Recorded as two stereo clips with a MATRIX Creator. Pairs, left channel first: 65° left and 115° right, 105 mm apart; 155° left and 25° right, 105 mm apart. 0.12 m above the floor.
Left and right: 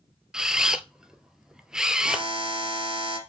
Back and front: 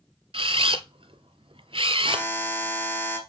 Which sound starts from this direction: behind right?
A buzzer, at 2.0 s.